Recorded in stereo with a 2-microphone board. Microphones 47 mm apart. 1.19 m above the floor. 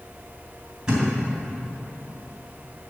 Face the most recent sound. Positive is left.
turn(degrees=-15)  # may be behind; listen again after turning